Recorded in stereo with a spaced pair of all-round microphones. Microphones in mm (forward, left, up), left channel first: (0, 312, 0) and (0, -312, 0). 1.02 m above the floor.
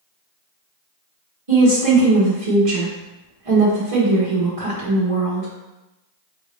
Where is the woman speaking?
60° right (ahead or behind), 1.1 m.